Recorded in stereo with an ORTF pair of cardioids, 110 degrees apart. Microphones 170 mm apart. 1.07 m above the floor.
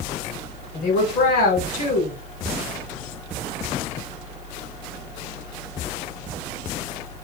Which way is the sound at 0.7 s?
65° left.